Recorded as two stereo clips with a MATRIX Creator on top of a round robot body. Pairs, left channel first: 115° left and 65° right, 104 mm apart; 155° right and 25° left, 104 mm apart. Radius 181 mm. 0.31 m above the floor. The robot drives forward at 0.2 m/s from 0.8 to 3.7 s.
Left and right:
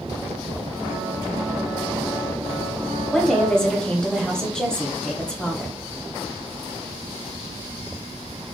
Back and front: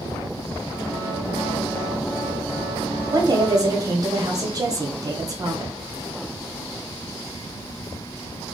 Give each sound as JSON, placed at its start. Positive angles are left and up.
{"t": 3.1, "sound": "a woman speaking", "azimuth_deg": 30, "distance_m": 1.0}